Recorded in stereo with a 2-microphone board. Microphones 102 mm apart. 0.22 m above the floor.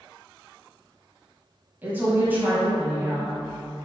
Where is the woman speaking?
20° right (ahead or behind), 1.0 m.